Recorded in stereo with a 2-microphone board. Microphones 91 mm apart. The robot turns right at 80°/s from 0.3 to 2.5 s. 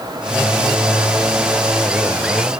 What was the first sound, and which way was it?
Only background noise.